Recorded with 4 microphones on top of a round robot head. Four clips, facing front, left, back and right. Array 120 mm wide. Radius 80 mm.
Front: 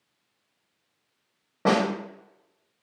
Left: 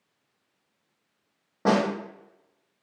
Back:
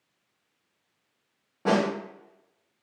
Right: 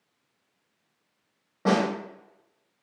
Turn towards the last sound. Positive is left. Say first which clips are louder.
# left 1 dB, front 1 dB
turn(degrees=35)